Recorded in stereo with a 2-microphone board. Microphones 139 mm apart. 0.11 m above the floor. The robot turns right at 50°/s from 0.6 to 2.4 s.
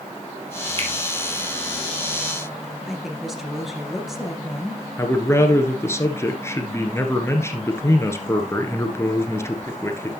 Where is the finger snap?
45° right (ahead or behind), 2.5 m; by 0.9 s 40° right (ahead or behind), 2.5 m.